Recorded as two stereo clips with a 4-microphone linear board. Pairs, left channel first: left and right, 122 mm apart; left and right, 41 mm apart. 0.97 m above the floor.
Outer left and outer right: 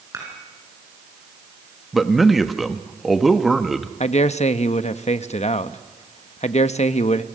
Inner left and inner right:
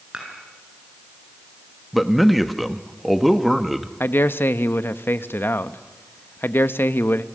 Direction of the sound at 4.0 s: 65° left (ahead or behind).